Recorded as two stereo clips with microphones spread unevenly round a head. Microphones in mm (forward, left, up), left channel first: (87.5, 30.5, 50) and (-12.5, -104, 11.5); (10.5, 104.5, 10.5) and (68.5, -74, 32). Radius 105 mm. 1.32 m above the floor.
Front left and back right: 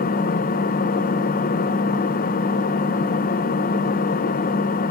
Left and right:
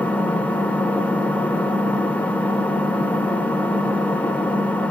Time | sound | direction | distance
0.0 | an engine running | 25° left | 0.8 m